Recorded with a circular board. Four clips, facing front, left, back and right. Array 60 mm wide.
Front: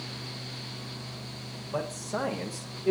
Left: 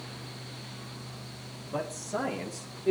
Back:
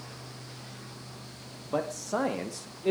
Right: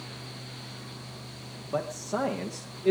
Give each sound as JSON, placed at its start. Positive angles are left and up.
{"t": 1.6, "sound": "a man speaking", "azimuth_deg": -155, "distance_m": 4.5}